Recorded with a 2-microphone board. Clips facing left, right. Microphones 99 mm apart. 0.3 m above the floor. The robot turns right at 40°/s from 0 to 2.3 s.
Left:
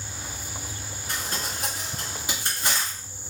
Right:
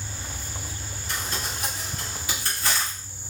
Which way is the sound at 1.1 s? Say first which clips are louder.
Even; 40° left (ahead or behind).